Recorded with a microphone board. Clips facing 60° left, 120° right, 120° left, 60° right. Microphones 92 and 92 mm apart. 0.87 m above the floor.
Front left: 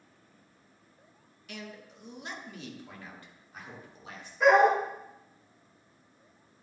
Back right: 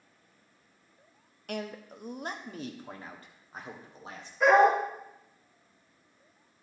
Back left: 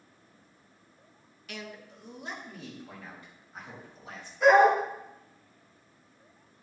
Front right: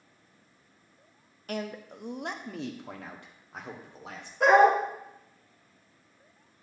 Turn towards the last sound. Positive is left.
turn(degrees=-25)